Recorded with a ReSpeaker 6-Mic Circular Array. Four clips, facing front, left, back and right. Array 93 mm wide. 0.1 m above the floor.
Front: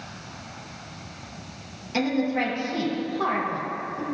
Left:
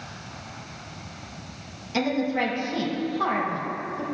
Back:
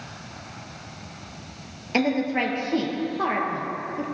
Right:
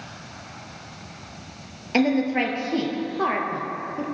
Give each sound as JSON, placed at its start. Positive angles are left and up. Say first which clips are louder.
{"t": 1.9, "sound": "a woman speaking", "louder": "right 4 dB, back 1 dB", "azimuth_deg": -125, "distance_m": 1.9}